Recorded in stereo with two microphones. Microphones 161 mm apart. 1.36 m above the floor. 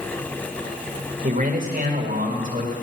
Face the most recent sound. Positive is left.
turn(degrees=-55)  # may be behind; listen again after turning